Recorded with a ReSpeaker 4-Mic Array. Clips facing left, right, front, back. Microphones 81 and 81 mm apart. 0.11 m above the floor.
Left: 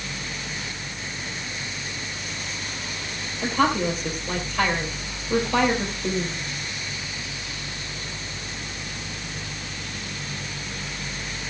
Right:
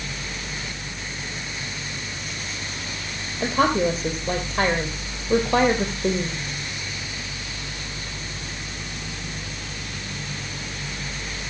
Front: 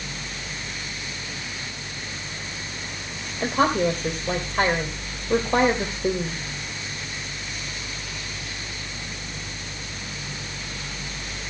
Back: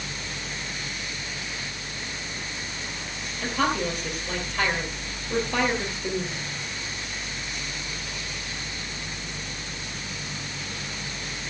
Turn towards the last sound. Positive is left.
turn(degrees=-50)